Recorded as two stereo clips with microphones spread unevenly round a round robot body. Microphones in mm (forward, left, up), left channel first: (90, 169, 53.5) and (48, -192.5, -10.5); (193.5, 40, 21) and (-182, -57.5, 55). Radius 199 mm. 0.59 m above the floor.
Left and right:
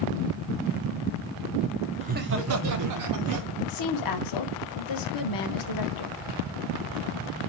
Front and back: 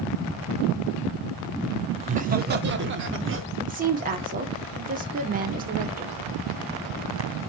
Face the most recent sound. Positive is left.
turn(degrees=125)